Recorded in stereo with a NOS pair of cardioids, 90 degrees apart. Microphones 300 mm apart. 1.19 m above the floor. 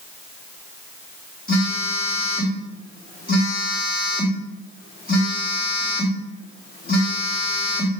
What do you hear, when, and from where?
1.5 s a phone buzzing: 30° left, 2.5 m